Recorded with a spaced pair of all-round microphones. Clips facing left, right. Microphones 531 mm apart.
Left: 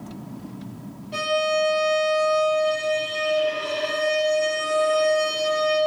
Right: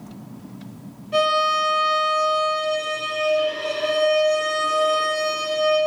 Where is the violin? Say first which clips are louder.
Right 1 dB; 5° left (ahead or behind), 4.5 m.